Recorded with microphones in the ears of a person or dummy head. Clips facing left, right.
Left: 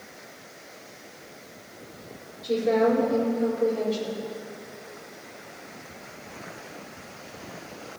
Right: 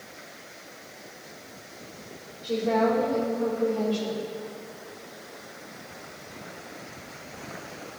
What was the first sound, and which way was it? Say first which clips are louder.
A woman speaking: left 2 dB; 20° left (ahead or behind).